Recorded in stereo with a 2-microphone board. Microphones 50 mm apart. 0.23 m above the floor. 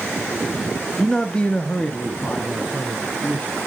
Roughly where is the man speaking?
Centre.